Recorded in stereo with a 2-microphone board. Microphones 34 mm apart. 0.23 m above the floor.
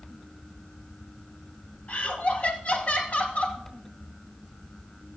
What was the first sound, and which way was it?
Laughter, 40° left (ahead or behind).